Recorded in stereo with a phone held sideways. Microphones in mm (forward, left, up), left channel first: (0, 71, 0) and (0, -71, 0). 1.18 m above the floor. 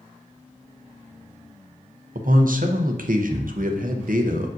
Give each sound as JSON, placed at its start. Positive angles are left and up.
{"t": 2.1, "sound": "a man speaking", "side_deg": -75, "distance_m": 0.7}